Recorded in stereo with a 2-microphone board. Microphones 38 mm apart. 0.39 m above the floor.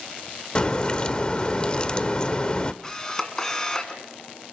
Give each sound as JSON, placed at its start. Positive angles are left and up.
{"t": 0.6, "sound": "a crack", "side_deg": 25, "distance_m": 0.9}
{"t": 2.8, "sound": "a camera shutter", "side_deg": 20, "distance_m": 2.0}